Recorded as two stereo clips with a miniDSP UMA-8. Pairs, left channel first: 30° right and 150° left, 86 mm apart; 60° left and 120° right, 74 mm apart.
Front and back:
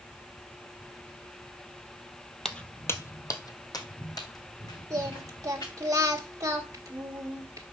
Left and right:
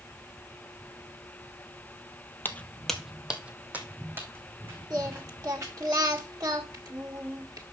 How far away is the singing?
About 1.7 m.